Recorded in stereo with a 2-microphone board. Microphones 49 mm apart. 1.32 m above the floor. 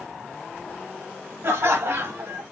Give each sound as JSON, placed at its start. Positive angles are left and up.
{"t": 1.4, "sound": "laughter", "side_deg": -70, "distance_m": 0.8}